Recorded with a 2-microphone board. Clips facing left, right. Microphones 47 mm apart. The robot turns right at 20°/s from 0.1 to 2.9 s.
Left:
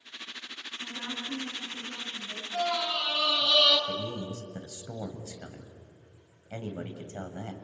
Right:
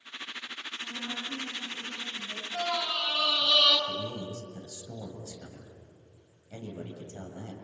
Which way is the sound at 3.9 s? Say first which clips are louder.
Left 1 dB; 45° left (ahead or behind).